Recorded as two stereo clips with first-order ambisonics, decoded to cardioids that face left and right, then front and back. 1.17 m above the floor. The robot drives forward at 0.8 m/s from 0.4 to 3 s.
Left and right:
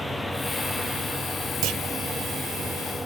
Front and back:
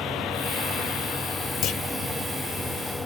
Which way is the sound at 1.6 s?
50° right.